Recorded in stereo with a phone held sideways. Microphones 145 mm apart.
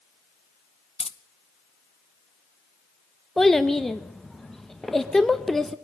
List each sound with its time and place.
1.0 s keys jangling: 45° left (ahead or behind), 0.5 m
3.4 s a child speaking: centre (ahead or behind), 0.6 m